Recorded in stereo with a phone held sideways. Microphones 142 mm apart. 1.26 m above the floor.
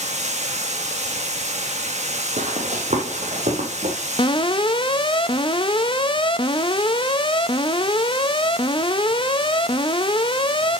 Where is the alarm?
35° left (ahead or behind), 0.6 m.